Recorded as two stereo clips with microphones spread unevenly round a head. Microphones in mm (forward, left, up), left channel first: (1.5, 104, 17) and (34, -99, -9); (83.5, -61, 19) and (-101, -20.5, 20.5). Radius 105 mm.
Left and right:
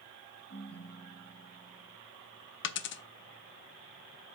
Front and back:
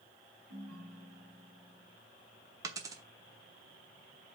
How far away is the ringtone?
About 3 m.